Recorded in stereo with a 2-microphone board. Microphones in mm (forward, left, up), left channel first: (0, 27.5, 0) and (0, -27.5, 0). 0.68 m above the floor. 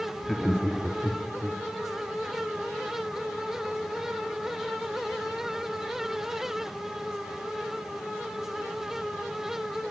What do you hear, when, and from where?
0.2 s laughter: 5° left (ahead or behind), 1.6 m; by 1.6 s 15° right (ahead or behind), 3 m